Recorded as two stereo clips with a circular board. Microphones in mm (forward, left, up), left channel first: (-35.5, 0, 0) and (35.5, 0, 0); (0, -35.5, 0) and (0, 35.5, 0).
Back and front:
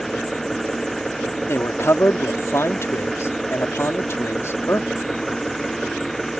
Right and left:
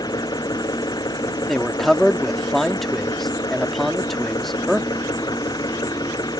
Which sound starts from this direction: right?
An engine running, at 0.0 s.